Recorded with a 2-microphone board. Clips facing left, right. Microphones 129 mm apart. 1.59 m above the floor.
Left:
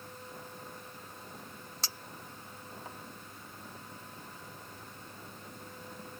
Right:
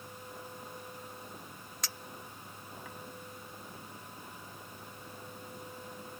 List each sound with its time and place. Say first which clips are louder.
1.8 s a clink: right 1 dB; 30° left (ahead or behind)